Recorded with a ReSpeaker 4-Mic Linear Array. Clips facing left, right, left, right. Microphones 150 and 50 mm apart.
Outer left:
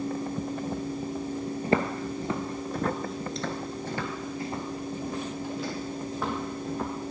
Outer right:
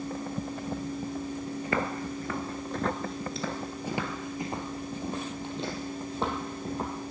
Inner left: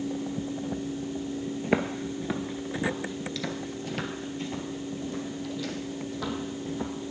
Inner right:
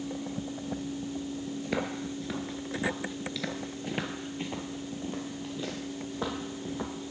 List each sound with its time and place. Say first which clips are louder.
1.6 s footsteps: outer left 5 dB, inner left 6 dB; 35° left (ahead or behind), 1.1 m; by 6.9 s 30° right (ahead or behind), 3 m